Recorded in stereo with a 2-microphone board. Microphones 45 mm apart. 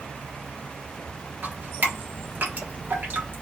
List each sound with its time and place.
1.4 s dripping: 40° right (ahead or behind), 1.3 m